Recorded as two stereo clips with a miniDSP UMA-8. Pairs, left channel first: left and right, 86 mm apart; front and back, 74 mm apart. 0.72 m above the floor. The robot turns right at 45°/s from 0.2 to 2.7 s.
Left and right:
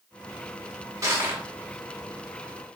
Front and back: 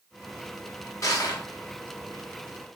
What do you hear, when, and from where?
1.0 s crushing: 40° right, 1.4 m; by 1.4 s 20° right, 1.4 m